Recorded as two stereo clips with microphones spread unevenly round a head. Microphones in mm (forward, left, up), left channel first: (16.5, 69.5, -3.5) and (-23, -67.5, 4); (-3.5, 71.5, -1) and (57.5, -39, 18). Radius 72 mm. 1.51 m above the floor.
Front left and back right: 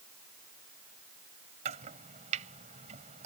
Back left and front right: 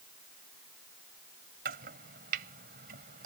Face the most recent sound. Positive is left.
turn(degrees=-65)